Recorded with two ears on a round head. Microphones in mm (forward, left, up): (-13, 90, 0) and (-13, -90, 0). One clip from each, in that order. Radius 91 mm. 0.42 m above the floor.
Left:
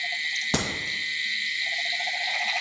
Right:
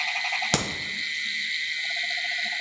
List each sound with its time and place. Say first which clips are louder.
0.5 s a crack: right 2 dB; 70° right (ahead or behind), 1.5 m